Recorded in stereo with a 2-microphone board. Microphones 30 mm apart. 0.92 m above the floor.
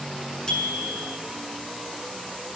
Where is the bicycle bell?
20° left (ahead or behind), 7 m.